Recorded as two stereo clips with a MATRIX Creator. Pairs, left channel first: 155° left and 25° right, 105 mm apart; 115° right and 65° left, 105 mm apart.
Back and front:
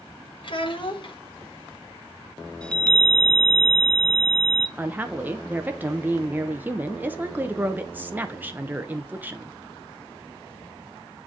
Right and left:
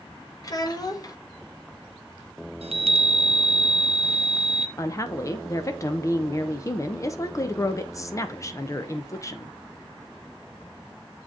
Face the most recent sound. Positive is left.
turn(degrees=-80)